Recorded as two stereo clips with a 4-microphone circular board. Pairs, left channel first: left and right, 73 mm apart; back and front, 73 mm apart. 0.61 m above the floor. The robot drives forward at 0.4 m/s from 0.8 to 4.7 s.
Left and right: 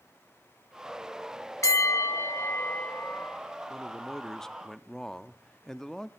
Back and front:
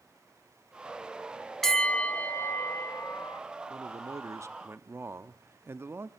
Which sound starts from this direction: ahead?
A man speaking, at 3.7 s.